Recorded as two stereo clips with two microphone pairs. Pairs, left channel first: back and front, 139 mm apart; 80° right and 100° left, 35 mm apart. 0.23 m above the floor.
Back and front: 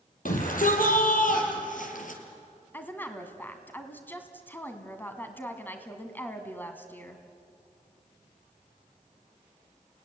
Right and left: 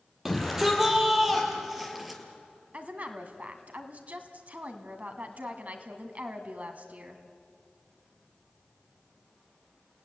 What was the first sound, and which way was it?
A shout, 175° right.